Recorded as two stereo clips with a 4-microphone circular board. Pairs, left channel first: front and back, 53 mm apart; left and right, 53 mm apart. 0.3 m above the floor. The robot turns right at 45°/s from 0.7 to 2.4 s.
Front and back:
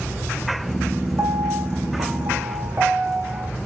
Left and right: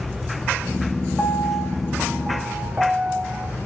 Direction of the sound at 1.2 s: 165° left.